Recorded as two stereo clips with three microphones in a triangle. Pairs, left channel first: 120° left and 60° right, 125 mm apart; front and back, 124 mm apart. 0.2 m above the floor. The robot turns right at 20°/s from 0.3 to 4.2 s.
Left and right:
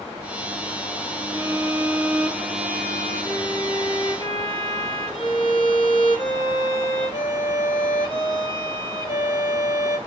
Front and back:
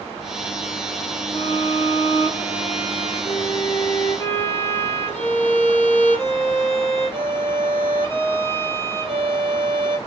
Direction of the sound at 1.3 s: 10° left.